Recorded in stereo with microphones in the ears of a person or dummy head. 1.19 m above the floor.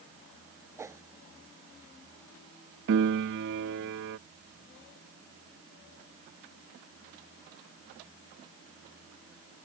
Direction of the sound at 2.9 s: 60° right (ahead or behind).